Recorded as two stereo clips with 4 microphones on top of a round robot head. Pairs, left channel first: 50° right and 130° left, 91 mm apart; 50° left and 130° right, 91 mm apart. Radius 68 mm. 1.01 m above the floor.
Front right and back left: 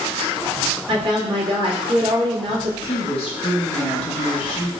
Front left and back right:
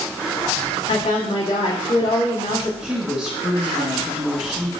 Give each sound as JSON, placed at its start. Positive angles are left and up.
{"t": 0.9, "sound": "a woman speaking", "azimuth_deg": 95, "distance_m": 1.6}
{"t": 2.8, "sound": "a woman speaking", "azimuth_deg": -50, "distance_m": 1.8}